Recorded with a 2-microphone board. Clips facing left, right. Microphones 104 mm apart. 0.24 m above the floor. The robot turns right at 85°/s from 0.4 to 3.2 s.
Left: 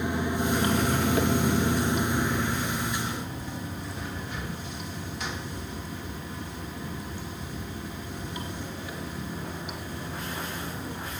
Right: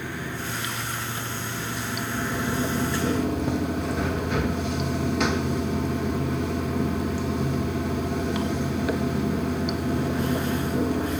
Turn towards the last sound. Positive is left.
turn(degrees=-105)